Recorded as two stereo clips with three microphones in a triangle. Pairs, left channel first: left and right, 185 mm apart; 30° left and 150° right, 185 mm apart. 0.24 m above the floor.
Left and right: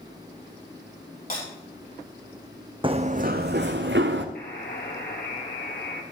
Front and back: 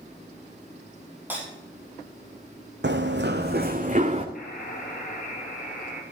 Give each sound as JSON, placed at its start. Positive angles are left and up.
{"t": 1.3, "sound": "breaking glass", "azimuth_deg": 130, "distance_m": 5.5}
{"t": 2.8, "sound": "running footsteps", "azimuth_deg": -155, "distance_m": 0.8}
{"t": 4.3, "sound": "a buzzer", "azimuth_deg": 65, "distance_m": 2.5}